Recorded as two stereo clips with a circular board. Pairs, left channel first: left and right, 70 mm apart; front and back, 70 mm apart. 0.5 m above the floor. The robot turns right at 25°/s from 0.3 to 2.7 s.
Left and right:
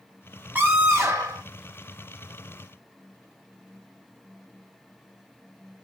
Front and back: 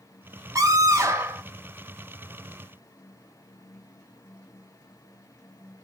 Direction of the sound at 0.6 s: 150° right.